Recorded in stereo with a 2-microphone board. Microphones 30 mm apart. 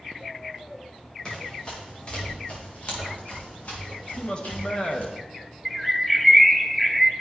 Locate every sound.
1.2 s running footsteps: 25° left (ahead or behind), 5.5 m; by 5.1 s 55° left (ahead or behind), 5 m
4.2 s a man speaking: 35° left (ahead or behind), 1.4 m
5.7 s a bird: centre (ahead or behind), 0.6 m